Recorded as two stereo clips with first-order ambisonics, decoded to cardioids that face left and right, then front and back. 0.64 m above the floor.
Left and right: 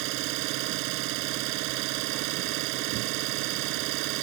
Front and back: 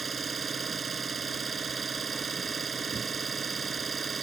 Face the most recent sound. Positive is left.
turn(degrees=-110)